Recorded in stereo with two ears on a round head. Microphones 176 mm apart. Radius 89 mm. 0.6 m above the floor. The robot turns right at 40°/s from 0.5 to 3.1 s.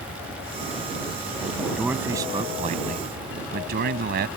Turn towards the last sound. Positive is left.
turn(degrees=-125)